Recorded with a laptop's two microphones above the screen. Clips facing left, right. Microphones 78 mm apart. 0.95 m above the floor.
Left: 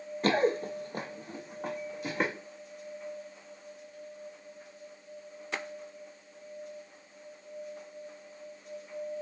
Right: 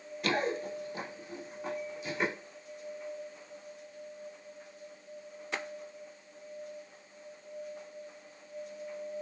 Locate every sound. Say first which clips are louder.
0.2 s running footsteps: left 5 dB; 35° left (ahead or behind), 1.1 m; by 2.3 s 45° left (ahead or behind), 3 m